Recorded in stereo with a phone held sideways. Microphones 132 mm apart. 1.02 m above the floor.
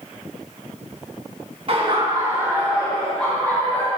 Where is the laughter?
45° right (ahead or behind), 1.3 m; by 3.9 s 20° left (ahead or behind), 1.8 m.